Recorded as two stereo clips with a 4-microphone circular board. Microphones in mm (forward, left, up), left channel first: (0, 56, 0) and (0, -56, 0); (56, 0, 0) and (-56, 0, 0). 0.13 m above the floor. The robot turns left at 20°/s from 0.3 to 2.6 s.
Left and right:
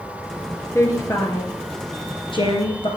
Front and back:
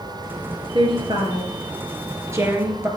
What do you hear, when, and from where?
0.8 s a woman speaking: 150° left, 2.5 m; by 2.9 s 115° left, 2.5 m